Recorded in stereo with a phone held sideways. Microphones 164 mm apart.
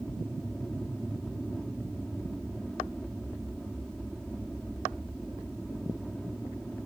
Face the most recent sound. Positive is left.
turn(degrees=5)  # may be behind; listen again after turning